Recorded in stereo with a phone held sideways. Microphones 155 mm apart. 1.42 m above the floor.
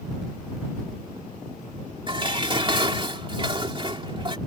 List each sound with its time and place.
2.1 s dishes clattering: 35° right (ahead or behind)